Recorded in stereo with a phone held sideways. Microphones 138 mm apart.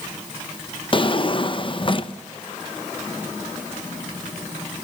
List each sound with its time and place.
0.9 s a drawer: 40° left (ahead or behind), 0.6 m